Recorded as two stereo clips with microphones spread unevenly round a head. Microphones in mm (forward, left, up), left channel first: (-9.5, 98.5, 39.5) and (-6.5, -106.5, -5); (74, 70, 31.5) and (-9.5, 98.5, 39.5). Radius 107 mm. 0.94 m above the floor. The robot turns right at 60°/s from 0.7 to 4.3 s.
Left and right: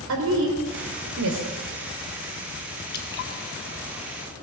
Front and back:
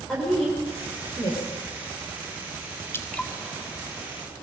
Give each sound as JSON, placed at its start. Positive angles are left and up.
{"t": 0.1, "sound": "a woman speaking", "azimuth_deg": -105, "distance_m": 3.0}
{"t": 2.9, "sound": "dripping", "azimuth_deg": 40, "distance_m": 1.7}